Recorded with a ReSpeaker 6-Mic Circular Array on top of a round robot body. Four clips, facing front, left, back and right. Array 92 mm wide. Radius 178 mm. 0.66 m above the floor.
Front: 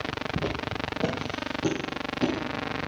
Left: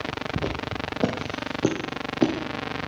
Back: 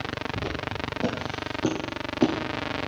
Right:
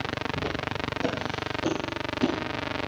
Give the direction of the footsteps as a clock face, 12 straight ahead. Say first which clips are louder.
Left 1 dB, front 1 dB; 10 o'clock.